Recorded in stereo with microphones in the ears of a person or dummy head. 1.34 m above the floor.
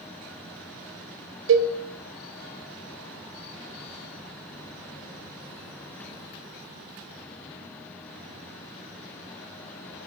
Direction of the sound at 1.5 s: 60° right (ahead or behind).